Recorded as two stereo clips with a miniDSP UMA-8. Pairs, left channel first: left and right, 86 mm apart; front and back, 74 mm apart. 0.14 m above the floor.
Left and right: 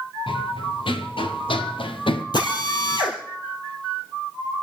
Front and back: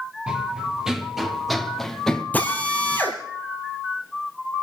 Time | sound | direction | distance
0.3 | running footsteps | 100° left | 3 m
2.3 | a drill | 70° left | 3.5 m